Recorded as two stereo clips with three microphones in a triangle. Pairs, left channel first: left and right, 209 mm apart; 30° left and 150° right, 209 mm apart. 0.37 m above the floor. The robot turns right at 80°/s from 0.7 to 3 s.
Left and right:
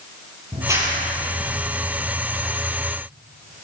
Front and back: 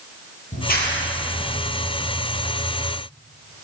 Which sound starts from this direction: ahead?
A clap, at 0.5 s.